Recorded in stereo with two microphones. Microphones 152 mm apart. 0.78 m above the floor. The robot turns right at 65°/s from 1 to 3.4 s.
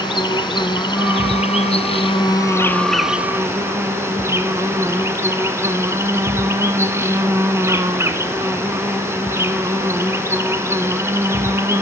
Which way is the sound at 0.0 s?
50° left.